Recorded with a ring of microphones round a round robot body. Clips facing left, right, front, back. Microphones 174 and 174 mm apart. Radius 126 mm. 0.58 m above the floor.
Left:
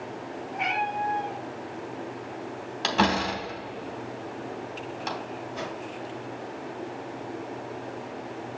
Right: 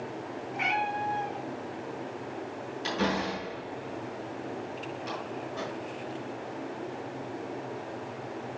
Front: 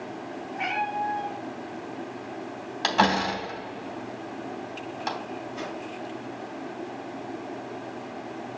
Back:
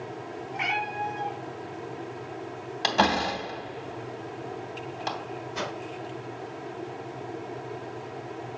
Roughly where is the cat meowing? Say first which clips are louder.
Left 2 dB, front 3 dB; behind right.